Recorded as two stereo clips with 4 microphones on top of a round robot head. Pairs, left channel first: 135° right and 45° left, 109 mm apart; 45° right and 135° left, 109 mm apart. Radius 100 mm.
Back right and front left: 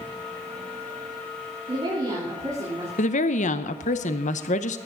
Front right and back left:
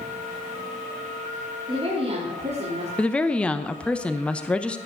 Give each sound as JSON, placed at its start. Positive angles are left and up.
{"t": 1.7, "sound": "a woman speaking", "azimuth_deg": 90, "distance_m": 4.0}
{"t": 3.0, "sound": "a woman speaking", "azimuth_deg": -125, "distance_m": 0.9}